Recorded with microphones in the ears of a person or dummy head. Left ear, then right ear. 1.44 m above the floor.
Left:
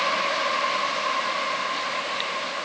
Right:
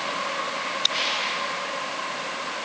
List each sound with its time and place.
Only background noise.